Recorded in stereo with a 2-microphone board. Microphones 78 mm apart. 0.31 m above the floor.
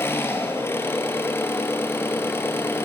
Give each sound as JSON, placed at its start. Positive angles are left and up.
{"t": 0.0, "sound": "an engine running", "side_deg": 30, "distance_m": 3.5}